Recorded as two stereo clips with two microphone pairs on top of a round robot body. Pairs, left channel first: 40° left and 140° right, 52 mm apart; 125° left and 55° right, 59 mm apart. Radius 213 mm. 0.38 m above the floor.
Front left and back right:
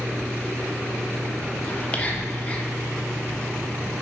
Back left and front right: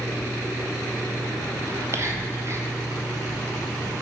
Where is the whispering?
25° right, 1.5 m.